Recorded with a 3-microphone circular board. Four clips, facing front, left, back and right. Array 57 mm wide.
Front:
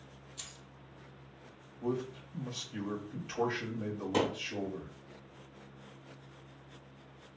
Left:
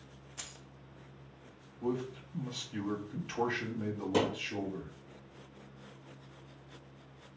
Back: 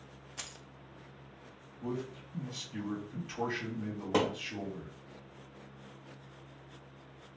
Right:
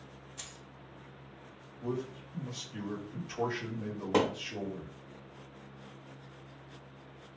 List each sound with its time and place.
0.4 s keys jangling: 165° left, 0.5 m
1.8 s a man speaking: 75° left, 2.5 m
4.1 s a thud: 135° right, 1.8 m